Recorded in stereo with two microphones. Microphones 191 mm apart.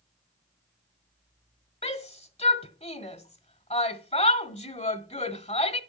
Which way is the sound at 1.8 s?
35° left (ahead or behind).